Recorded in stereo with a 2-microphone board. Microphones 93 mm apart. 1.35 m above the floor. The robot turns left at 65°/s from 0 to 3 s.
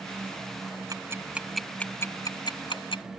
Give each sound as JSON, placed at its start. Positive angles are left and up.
{"t": 0.9, "sound": "ticking", "side_deg": -40}